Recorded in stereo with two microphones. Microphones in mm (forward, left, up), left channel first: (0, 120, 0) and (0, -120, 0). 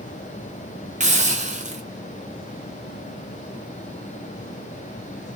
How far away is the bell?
I don't hear a bell.